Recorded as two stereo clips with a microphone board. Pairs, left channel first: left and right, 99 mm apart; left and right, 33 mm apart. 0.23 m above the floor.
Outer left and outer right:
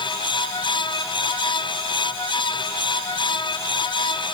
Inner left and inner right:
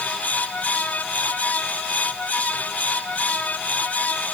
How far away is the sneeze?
I don't hear a sneeze.